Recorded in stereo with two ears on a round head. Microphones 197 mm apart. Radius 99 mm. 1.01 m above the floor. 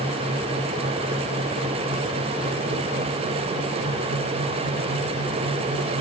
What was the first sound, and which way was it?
Only background noise.